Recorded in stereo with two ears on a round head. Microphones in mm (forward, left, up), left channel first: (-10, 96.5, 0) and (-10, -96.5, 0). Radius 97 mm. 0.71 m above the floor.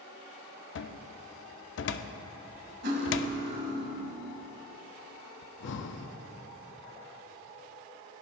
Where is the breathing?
55° left (ahead or behind), 0.7 m.